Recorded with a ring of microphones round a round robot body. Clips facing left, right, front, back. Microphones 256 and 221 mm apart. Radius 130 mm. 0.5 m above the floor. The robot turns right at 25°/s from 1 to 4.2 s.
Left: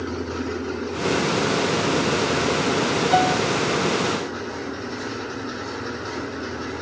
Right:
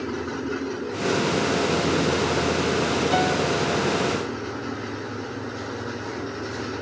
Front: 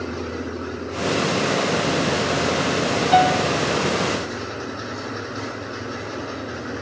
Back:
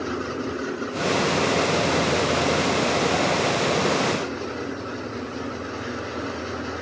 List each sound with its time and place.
3.1 s a piano: 10° right; by 3.5 s straight ahead